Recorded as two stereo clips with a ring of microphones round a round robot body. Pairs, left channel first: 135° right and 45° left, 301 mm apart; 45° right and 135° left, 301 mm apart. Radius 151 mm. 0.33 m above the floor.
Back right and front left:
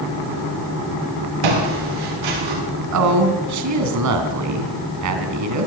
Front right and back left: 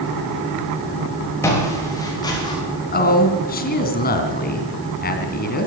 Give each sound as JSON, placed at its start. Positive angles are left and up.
{"t": 1.4, "sound": "footsteps", "azimuth_deg": 35, "distance_m": 8.5}
{"t": 2.9, "sound": "a woman speaking", "azimuth_deg": 15, "distance_m": 3.0}